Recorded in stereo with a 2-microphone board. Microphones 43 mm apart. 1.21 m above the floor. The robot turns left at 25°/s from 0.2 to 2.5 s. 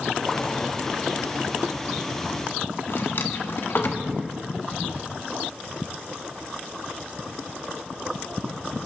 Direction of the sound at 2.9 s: 60° left (ahead or behind).